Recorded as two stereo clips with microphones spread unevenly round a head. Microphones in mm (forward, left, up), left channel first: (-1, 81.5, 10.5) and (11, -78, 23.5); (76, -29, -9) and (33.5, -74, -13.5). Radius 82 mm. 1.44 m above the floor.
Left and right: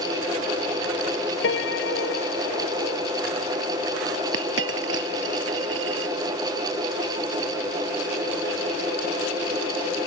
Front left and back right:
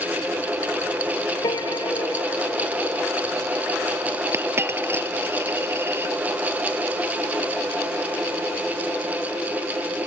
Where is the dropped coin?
85° right.